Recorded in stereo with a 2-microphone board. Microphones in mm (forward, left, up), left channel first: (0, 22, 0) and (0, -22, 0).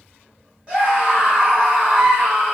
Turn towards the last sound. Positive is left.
turn(degrees=-25)  # may be behind; listen again after turning